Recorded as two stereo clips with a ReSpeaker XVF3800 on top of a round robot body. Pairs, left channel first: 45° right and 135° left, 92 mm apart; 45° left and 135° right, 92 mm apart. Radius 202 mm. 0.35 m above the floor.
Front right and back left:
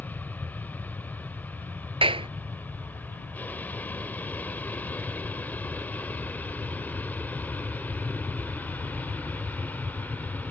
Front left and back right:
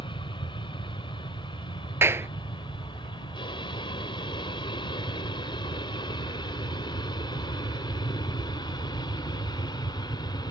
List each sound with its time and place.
0.0 s an aircraft: 25° left; by 10.5 s 20° left
2.0 s a clap: 160° left